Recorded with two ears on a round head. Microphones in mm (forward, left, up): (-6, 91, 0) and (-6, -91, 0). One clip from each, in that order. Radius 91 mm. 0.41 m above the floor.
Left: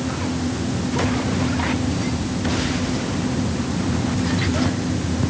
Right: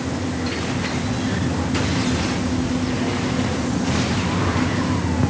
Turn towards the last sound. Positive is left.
No sound to turn to.